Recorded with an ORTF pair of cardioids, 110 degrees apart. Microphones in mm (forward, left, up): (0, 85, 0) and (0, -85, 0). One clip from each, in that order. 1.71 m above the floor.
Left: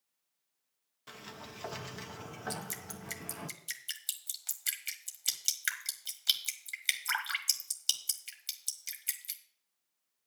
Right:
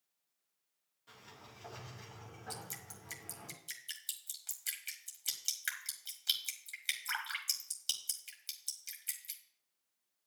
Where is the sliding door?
70° left, 1.3 m.